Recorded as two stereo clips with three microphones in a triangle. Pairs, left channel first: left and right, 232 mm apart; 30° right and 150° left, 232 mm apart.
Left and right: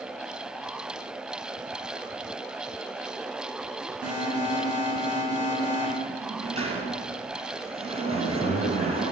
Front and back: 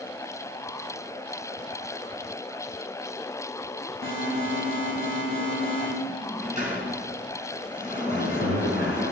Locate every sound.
4.0 s an alarm: 165° right, 7 m
6.1 s a sliding door: 150° right, 3 m
8.1 s a man speaking: 135° left, 3 m